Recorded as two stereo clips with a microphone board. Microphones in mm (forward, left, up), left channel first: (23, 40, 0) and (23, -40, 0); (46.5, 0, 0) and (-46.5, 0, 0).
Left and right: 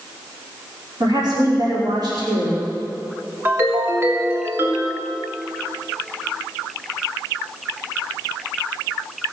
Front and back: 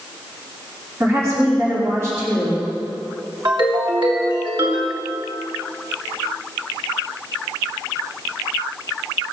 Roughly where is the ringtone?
Behind right.